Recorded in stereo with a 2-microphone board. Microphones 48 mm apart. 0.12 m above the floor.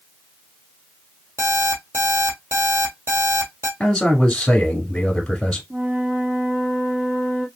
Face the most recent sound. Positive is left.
turn(degrees=-40)  # may be behind; listen again after turning